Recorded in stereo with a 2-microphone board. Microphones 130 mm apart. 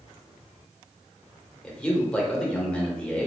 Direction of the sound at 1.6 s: 10° left (ahead or behind).